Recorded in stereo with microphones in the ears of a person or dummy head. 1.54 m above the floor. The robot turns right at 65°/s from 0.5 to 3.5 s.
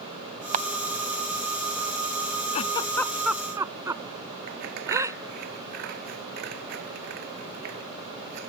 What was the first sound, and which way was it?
A camera shutter, 40° right (ahead or behind).